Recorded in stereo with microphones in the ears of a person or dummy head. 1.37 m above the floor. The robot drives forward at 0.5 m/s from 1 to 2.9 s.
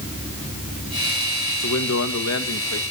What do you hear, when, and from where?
1.6 s a man speaking: 85° left, 1.8 m; by 2.8 s 75° left (ahead or behind), 1.9 m